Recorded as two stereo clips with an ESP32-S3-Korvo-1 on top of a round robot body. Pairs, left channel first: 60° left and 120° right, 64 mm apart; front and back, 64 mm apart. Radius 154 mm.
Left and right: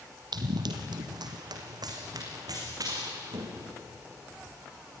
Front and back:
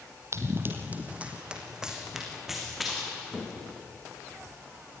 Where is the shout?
No shout in this recording.